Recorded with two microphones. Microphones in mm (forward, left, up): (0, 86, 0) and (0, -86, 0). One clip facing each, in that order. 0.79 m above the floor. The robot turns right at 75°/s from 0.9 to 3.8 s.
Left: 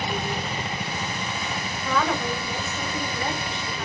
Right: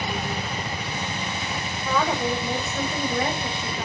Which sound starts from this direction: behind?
A woman speaking, at 1.9 s.